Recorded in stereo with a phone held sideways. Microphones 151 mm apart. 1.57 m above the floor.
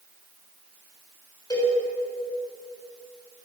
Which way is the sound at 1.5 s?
25° left (ahead or behind).